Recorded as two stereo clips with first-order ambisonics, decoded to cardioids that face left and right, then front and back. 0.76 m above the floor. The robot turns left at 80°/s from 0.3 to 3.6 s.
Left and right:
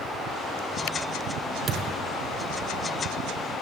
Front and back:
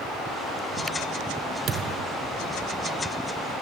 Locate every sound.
1.7 s a thud: 140° right, 0.9 m; by 2.0 s 170° right, 0.9 m